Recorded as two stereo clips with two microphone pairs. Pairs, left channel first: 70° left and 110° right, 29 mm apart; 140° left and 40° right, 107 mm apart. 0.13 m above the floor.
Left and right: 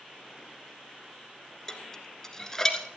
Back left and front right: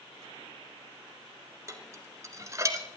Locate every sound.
1.7 s dishes clattering: 5° left, 1.2 m